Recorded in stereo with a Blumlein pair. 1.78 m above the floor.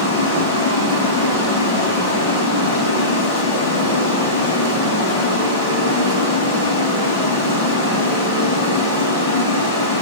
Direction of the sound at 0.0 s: 50° left.